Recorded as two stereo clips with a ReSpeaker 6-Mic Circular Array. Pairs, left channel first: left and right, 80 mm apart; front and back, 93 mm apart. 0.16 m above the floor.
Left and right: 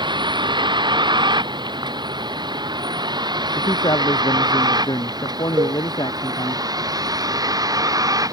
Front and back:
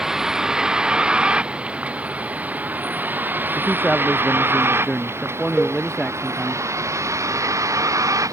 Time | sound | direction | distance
0.0 | a vehicle | 95° right | ?
3.5 | a man speaking | 85° left | ?
5.6 | a cowbell | 90° right | ?